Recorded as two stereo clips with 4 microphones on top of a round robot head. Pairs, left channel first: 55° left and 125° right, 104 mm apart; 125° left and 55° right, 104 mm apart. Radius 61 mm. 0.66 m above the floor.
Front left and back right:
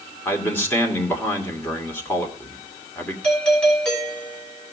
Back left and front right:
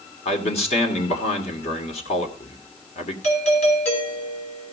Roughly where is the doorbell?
Behind left.